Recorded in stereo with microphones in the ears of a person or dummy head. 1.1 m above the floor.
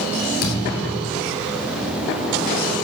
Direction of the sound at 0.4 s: 55° left (ahead or behind).